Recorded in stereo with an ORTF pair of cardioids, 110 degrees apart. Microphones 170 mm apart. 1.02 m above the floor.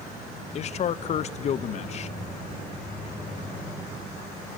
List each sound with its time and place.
0.6 s a man speaking: 40° left, 0.6 m